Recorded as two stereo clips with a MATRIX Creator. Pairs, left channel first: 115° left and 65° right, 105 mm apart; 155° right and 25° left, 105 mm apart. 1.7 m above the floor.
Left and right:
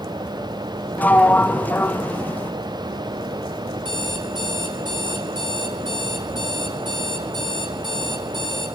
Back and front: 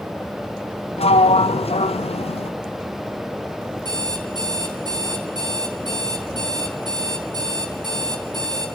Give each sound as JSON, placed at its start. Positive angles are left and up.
{"t": 1.0, "sound": "a sliding door", "azimuth_deg": -175, "distance_m": 0.5}
{"t": 3.9, "sound": "an alarm clock", "azimuth_deg": -25, "distance_m": 7.0}